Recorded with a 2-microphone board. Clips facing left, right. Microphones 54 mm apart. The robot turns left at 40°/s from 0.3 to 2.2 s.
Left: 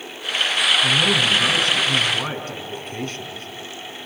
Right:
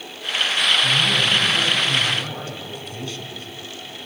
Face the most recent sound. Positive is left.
turn(degrees=40)